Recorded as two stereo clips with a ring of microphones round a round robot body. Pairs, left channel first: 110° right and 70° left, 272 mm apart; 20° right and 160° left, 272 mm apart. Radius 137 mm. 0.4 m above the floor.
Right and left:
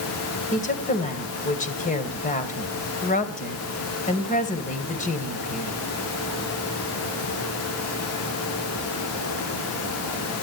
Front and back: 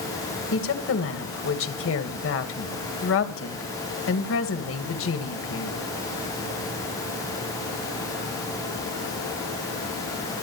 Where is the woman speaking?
55° right, 2.5 m.